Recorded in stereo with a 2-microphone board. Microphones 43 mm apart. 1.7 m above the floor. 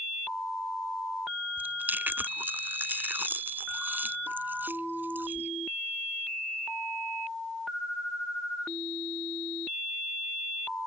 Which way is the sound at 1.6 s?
50° right (ahead or behind).